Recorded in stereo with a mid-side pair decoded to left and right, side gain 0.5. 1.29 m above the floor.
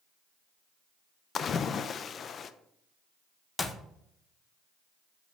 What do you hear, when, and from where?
1.4 s a splash: 45° left, 0.5 m
3.6 s a clap: 20° left, 1.0 m